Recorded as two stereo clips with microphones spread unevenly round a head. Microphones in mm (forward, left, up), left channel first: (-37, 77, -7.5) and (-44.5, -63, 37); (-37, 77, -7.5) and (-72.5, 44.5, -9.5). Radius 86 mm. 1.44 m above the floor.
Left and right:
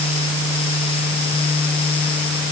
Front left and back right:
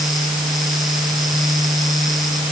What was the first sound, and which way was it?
Only background noise.